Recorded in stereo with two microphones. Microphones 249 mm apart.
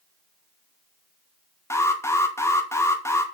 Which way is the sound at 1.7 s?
10° left (ahead or behind).